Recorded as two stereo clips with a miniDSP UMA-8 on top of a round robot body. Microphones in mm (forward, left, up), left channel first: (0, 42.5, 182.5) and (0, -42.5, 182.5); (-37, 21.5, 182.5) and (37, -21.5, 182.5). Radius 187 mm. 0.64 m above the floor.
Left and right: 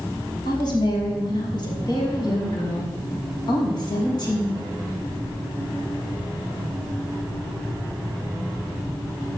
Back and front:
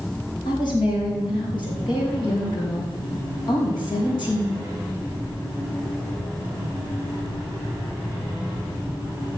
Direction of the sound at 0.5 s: 125° left.